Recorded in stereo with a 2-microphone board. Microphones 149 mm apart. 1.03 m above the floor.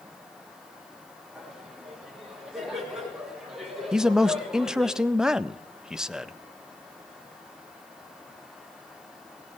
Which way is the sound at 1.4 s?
Centre (ahead or behind).